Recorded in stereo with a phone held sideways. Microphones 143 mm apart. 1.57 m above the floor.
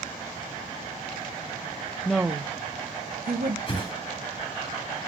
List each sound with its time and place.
2.0 s a woman speaking: 5° left (ahead or behind), 0.5 m; by 3.6 s 75° right (ahead or behind), 1.2 m
3.7 s a whoosh: 35° left (ahead or behind), 3 m